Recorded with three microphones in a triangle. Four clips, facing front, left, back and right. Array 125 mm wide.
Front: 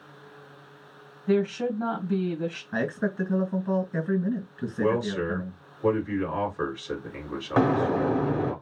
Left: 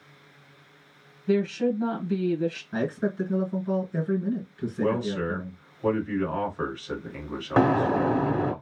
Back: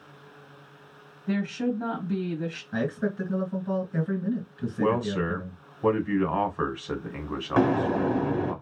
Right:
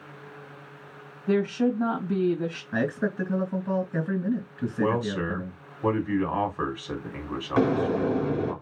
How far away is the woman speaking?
About 1.7 m.